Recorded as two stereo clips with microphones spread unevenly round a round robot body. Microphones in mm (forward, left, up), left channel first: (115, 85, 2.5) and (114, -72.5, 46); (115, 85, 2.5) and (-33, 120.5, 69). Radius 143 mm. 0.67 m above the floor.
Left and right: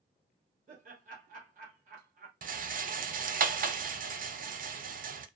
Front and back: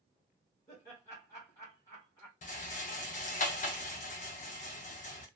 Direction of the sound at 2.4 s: 45° right.